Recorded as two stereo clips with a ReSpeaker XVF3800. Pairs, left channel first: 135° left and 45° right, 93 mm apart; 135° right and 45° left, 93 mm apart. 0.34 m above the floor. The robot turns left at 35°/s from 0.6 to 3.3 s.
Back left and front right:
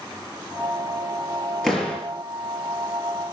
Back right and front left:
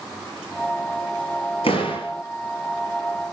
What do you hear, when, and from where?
1.6 s a door slam: 140° right, 5.5 m; by 2.1 s 155° right, 5.5 m